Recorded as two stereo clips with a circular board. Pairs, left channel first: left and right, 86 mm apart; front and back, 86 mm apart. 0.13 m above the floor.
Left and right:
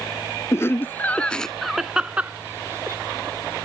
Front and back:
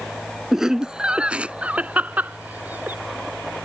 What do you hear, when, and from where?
0.5 s laughter: 100° left; by 3.0 s 125° right